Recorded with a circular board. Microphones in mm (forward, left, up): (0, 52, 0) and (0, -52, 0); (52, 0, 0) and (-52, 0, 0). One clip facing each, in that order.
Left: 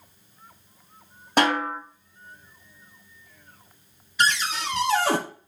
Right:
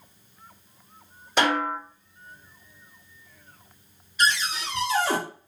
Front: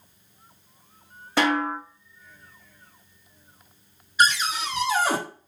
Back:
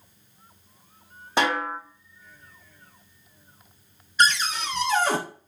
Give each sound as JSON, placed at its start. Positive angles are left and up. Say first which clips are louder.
{"t": 1.4, "sound": "a snare drum", "louder": "left 1 dB, front 2 dB", "azimuth_deg": 115, "distance_m": 2.5}
{"t": 4.2, "sound": "a cupboard door", "louder": "left 1 dB, front 1 dB", "azimuth_deg": 80, "distance_m": 0.7}